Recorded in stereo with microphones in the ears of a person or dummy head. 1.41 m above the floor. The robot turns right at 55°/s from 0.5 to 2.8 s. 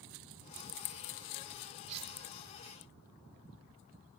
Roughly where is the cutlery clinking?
Right.